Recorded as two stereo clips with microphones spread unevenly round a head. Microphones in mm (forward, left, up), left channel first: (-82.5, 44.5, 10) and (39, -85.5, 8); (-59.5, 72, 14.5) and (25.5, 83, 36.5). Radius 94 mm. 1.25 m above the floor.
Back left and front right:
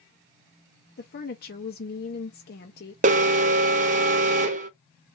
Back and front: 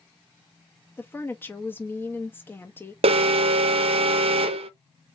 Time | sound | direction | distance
1.0 | a woman speaking | 140° left | 0.7 m
3.0 | an alarm | 5° left | 0.6 m